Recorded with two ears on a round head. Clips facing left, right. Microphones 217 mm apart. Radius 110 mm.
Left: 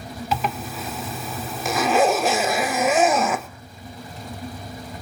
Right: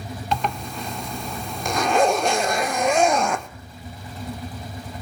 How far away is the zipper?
About 0.5 m.